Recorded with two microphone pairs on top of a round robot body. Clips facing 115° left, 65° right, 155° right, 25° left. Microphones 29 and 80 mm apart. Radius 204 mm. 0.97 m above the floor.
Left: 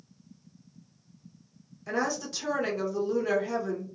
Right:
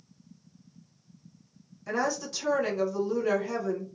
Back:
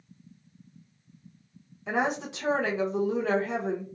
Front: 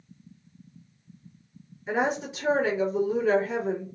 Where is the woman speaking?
160° right, 1.1 m.